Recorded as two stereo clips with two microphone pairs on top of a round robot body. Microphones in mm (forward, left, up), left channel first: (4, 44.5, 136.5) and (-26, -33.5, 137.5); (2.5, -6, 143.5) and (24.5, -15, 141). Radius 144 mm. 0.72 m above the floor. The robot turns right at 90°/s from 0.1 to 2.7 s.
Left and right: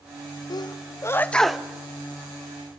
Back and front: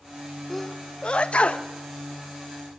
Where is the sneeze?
65° left, 0.7 m; by 1.7 s 170° left, 0.7 m.